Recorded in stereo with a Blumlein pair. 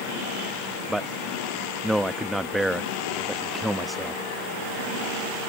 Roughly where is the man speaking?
Ahead.